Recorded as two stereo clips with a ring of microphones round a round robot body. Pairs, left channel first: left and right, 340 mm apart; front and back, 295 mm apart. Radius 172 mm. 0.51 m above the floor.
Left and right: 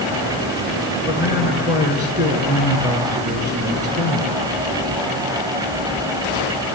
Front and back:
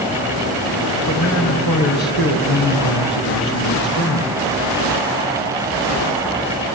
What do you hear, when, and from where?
1.1 s a man speaking: 10° right, 6.5 m